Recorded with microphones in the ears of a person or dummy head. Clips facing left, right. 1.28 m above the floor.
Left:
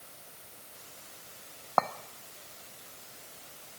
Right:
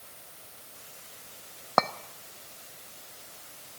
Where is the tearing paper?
I don't hear tearing paper.